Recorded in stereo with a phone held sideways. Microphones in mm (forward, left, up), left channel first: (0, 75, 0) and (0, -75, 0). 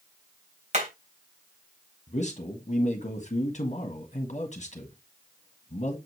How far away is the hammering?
About 3.5 m.